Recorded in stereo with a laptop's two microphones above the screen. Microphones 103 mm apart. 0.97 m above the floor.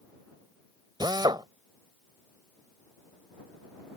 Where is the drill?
40° right (ahead or behind).